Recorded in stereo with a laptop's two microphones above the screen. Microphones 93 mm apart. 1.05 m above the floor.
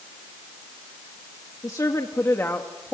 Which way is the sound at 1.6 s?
40° left (ahead or behind).